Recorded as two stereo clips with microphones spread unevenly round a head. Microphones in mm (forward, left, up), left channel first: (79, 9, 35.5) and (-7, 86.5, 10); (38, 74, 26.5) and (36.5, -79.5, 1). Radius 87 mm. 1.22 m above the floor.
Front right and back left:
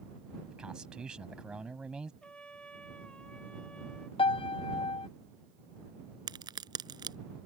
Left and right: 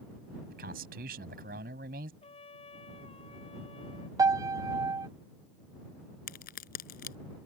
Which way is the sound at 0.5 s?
135° right.